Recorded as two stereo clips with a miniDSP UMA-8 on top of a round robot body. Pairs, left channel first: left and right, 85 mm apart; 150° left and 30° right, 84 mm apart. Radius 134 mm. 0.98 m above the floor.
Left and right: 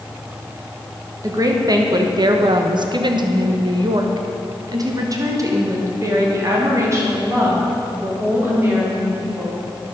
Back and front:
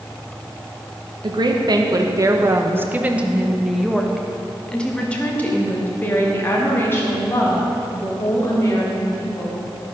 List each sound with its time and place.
1.2 s a woman speaking: 45° right, 1.4 m; by 9.6 s 155° right, 4.5 m